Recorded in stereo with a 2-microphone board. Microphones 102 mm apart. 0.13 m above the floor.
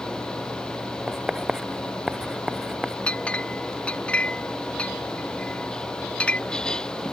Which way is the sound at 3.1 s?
10° left (ahead or behind).